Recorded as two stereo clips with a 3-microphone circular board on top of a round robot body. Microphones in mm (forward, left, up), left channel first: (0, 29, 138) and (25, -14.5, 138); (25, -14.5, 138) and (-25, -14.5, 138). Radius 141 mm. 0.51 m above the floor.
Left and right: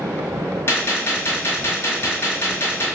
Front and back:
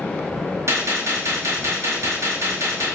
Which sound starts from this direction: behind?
A gunshot, at 0.7 s.